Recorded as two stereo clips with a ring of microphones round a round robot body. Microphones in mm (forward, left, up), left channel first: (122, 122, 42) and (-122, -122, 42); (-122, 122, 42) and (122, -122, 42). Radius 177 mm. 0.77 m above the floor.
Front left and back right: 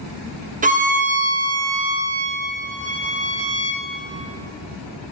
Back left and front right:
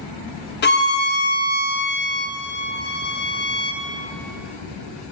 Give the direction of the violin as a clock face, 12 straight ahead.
6 o'clock.